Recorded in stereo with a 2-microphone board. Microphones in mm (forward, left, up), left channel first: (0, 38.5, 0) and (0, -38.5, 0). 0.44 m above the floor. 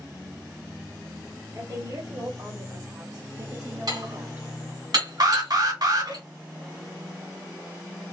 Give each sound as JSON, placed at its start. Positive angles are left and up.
{"t": 1.6, "sound": "a woman speaking", "side_deg": -55, "distance_m": 1.6}
{"t": 3.9, "sound": "dishes clattering", "side_deg": -60, "distance_m": 1.4}
{"t": 5.2, "sound": "an alarm", "side_deg": -60, "distance_m": 1.0}